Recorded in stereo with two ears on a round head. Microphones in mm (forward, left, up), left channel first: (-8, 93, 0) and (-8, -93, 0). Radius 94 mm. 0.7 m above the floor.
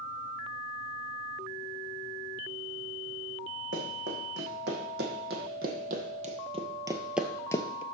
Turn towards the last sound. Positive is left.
turn(degrees=30)  # may be behind; listen again after turning